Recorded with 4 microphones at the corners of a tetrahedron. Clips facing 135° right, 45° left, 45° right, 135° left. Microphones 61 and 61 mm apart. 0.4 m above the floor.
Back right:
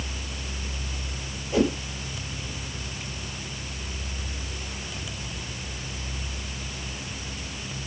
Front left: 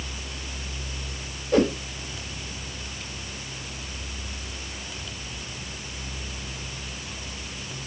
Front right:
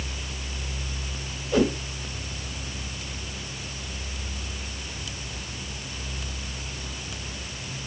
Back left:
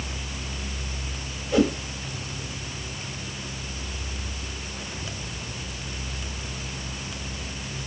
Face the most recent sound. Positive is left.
turn(degrees=40)